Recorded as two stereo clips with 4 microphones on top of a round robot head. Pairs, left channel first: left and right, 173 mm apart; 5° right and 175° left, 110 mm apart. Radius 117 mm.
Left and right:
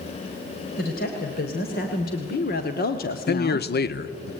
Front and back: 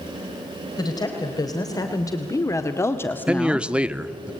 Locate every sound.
0.8 s a woman speaking: 50° left, 3 m; by 3.7 s 85° left, 0.8 m
3.3 s a man speaking: 95° left, 1.1 m